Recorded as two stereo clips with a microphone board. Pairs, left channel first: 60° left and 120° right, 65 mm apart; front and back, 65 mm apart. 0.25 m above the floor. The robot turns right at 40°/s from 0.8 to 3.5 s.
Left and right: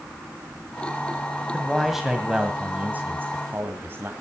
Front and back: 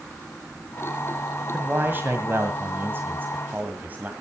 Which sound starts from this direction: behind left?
A man speaking, at 1.5 s.